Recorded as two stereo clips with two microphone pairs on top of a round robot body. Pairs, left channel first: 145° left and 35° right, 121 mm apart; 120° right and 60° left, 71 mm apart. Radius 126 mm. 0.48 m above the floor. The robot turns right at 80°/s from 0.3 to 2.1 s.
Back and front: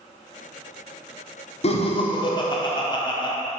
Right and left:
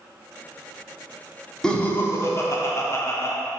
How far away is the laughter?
About 1.3 m.